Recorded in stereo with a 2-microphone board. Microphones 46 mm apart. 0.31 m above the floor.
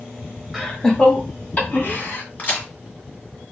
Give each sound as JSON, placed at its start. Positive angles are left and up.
{"t": 0.5, "sound": "laughter", "side_deg": -5, "distance_m": 1.4}
{"t": 2.4, "sound": "a crack", "side_deg": 35, "distance_m": 1.8}